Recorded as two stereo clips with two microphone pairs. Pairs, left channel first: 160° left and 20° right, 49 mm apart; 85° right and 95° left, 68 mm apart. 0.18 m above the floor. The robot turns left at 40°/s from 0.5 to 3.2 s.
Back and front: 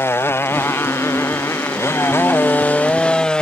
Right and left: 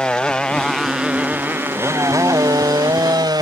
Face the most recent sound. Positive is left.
turn(degrees=85)